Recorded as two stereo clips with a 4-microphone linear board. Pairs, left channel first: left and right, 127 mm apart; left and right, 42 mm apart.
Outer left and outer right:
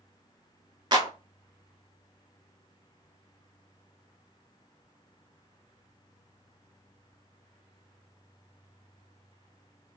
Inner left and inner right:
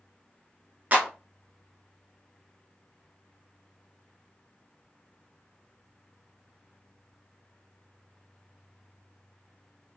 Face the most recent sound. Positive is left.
turn(degrees=-35)  # may be behind; listen again after turning